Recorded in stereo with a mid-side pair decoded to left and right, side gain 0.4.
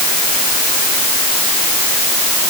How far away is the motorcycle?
No motorcycle in this recording.